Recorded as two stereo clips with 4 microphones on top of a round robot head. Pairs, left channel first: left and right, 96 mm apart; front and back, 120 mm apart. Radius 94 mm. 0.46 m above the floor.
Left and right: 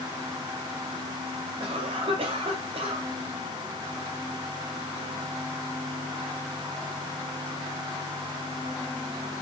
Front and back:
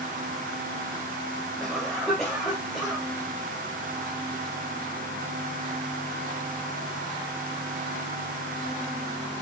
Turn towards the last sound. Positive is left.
turn(degrees=-90)